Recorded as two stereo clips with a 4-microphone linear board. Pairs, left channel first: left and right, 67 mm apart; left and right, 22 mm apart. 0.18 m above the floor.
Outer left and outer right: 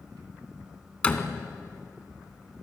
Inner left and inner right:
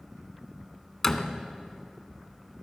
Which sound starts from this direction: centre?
A door slam, at 1.0 s.